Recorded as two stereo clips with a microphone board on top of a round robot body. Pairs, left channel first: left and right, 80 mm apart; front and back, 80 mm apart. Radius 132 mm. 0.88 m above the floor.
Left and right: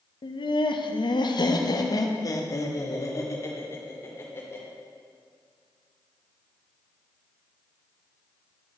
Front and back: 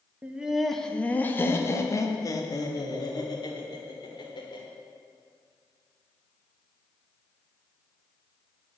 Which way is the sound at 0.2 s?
105° left.